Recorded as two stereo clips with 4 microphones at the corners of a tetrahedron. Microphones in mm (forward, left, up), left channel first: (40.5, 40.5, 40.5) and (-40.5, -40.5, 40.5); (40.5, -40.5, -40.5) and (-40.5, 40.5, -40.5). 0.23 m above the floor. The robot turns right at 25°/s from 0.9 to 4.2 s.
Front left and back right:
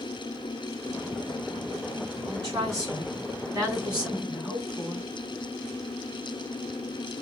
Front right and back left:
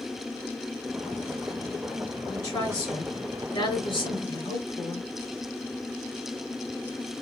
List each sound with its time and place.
2.2 s a woman speaking: 105° right, 2.5 m; by 5.1 s 55° right, 2.5 m